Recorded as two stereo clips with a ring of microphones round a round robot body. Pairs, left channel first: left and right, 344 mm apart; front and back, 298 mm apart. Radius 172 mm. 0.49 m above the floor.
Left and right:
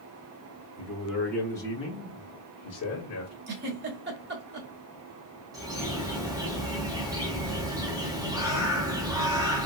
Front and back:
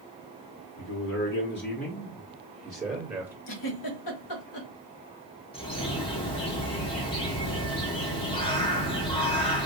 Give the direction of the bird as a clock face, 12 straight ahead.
1 o'clock.